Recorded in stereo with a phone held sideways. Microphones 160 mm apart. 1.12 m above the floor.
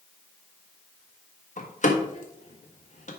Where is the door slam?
50° left (ahead or behind), 1.5 m.